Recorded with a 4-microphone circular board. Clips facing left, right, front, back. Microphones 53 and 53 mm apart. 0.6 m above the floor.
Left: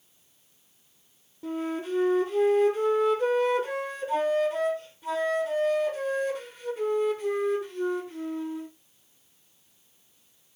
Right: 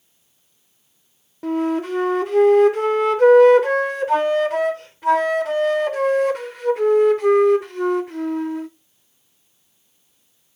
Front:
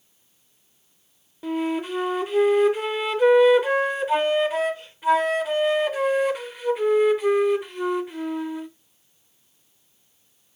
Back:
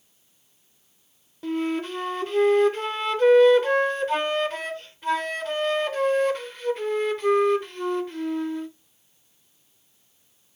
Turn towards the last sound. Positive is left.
turn(degrees=-80)